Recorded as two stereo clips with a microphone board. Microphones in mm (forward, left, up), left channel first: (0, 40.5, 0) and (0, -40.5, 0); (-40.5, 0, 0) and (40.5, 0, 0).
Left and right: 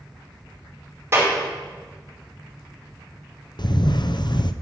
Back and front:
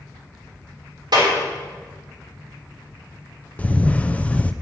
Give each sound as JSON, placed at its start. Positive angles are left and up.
{"t": 1.1, "sound": "a clap", "azimuth_deg": -30, "distance_m": 4.5}
{"t": 3.6, "sound": "a camera shutter", "azimuth_deg": 110, "distance_m": 0.5}